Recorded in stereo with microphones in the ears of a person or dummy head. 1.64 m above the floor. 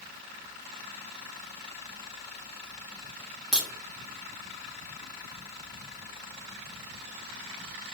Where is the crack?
5° right (ahead or behind), 0.7 m.